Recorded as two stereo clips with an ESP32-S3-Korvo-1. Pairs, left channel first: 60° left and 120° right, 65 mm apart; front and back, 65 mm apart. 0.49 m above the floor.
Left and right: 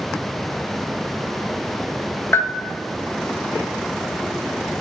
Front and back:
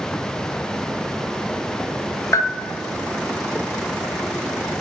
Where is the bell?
20° left, 0.6 m.